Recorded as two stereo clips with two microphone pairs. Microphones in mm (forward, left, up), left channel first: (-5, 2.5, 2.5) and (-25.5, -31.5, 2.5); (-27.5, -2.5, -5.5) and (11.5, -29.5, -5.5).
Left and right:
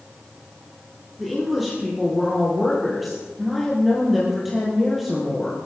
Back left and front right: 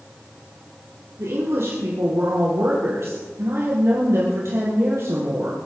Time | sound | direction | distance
1.2 | a woman speaking | 35° right | 4 m